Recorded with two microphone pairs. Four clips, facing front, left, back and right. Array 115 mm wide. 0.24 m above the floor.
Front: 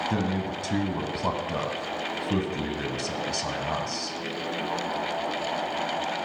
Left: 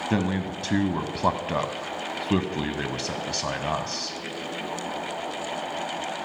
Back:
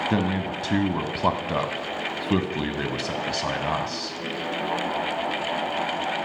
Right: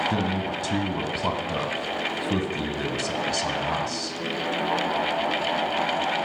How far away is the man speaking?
About 1.4 m.